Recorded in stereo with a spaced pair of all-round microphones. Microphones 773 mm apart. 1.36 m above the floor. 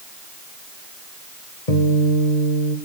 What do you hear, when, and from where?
1.7 s a guitar: 50° left (ahead or behind), 3 m